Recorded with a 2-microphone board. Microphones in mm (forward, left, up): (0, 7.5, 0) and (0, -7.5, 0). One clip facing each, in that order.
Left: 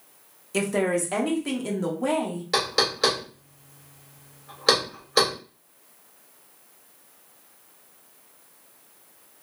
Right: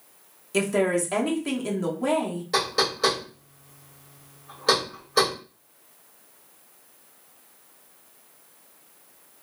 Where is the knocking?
30° left (ahead or behind), 1.3 m.